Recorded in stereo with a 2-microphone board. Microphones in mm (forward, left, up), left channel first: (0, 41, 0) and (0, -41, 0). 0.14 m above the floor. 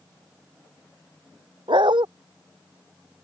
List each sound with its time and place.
1.7 s a dog barking: 80° right